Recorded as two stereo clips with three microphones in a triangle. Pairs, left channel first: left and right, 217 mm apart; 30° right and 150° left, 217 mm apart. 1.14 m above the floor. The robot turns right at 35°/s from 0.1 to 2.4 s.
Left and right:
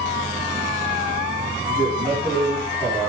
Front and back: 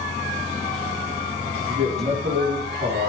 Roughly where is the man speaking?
Behind.